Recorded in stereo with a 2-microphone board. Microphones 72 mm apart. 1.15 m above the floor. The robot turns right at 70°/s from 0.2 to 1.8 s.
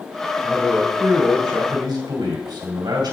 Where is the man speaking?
170° right, 2.5 m; by 3.1 s 75° right, 2.5 m.